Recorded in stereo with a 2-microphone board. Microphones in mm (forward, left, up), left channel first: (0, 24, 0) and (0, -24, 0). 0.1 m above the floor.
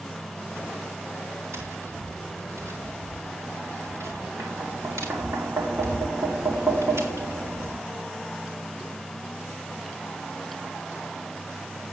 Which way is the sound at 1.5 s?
75° right (ahead or behind).